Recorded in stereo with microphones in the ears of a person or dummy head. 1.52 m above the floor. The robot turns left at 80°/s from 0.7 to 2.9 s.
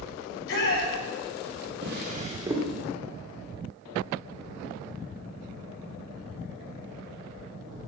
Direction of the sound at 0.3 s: 70° left (ahead or behind).